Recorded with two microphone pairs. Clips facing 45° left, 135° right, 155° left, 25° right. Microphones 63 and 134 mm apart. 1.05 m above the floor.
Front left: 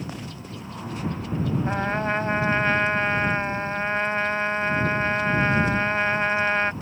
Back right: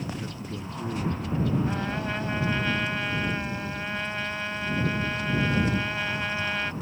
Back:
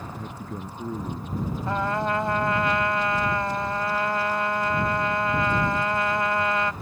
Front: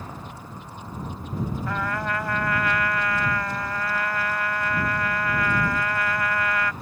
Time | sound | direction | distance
0.1 | a man speaking | 155° left | ?
1.7 | a trumpet | 90° left | ?